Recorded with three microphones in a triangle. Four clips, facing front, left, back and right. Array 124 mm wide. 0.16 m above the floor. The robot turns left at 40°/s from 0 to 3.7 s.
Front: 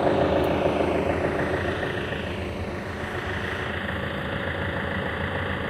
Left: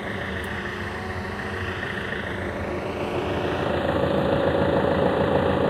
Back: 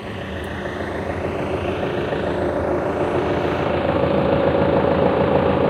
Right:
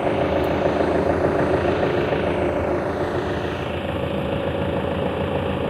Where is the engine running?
40° right; by 5.7 s 170° left.